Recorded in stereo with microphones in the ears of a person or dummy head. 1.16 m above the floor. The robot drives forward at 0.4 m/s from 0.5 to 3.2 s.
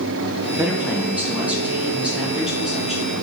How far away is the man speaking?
About 0.7 m.